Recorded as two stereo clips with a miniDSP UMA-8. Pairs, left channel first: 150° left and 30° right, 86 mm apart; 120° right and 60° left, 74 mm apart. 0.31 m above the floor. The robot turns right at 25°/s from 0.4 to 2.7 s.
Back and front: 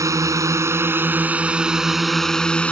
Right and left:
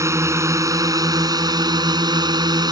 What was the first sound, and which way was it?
A drone, 15° left.